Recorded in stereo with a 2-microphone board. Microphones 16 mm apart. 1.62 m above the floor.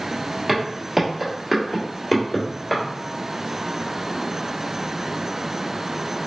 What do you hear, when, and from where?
0.5 s footsteps: 30° right (ahead or behind), 2.0 m; by 2.8 s 15° left (ahead or behind), 1.6 m